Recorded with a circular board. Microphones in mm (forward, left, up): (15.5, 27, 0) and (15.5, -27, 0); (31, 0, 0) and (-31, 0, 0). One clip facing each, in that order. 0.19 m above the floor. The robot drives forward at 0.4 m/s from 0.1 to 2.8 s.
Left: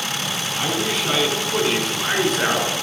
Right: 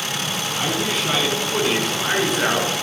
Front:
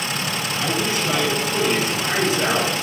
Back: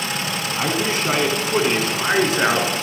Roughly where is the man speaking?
Behind.